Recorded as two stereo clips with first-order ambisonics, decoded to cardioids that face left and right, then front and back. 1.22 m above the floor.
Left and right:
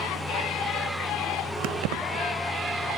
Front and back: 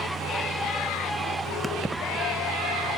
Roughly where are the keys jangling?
Right.